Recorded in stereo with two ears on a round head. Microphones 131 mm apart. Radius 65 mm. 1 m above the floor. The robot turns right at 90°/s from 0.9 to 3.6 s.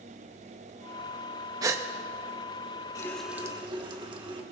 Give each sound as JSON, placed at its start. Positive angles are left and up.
{"t": 1.6, "sound": "a gasp", "side_deg": -25, "distance_m": 0.8}
{"t": 3.0, "sound": "a running tap", "azimuth_deg": 155, "distance_m": 1.3}